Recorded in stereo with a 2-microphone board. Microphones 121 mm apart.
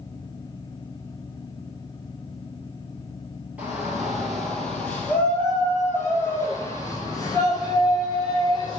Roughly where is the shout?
Centre.